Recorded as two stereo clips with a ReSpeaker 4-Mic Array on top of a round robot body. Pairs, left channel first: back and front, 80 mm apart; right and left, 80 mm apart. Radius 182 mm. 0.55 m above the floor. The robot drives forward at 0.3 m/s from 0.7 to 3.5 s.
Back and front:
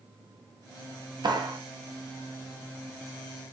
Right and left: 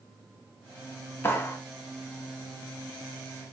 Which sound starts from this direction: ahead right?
A clap, at 1.2 s.